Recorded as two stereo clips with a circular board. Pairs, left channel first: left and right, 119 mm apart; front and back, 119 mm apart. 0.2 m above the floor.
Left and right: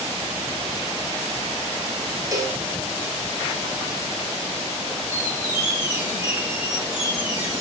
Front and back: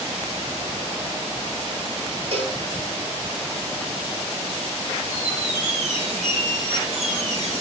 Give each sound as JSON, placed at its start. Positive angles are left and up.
{"t": 2.3, "sound": "a cowbell", "azimuth_deg": -150, "distance_m": 2.0}
{"t": 5.1, "sound": "a squeak", "azimuth_deg": -165, "distance_m": 5.0}